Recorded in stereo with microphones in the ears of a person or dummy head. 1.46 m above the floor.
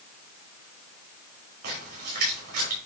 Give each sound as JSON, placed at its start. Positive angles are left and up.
{"t": 1.6, "sound": "a splash", "side_deg": -50, "distance_m": 4.5}